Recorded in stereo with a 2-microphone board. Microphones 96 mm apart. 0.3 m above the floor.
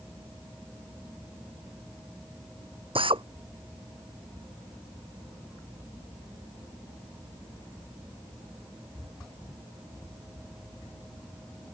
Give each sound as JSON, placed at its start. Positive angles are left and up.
{"t": 3.0, "sound": "a drill", "side_deg": -65}